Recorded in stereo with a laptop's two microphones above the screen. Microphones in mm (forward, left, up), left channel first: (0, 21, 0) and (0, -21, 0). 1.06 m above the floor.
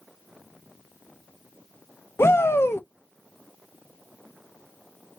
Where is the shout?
75° left (ahead or behind), 0.6 m.